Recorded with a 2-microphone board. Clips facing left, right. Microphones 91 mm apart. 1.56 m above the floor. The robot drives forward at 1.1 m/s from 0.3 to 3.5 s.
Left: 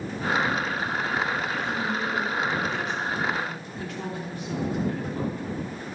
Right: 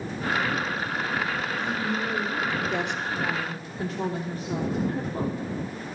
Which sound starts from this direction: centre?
A woman speaking, at 1.6 s.